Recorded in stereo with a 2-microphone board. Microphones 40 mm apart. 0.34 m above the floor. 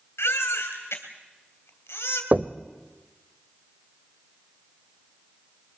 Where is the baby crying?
80° left, 3 m.